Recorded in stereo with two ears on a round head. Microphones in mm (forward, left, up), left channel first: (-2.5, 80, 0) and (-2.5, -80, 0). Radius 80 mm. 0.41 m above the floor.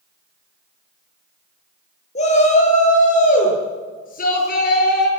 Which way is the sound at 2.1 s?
40° left (ahead or behind).